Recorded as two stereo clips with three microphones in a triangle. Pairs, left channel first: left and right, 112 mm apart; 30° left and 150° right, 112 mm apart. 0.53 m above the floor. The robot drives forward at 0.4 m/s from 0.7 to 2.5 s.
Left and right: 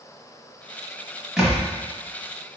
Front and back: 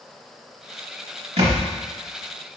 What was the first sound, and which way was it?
A thud, 175° right.